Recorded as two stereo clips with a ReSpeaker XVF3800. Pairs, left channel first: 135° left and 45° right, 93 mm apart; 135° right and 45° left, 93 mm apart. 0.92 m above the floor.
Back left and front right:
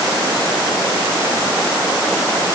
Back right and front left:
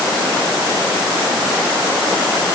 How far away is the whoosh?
No whoosh in this recording.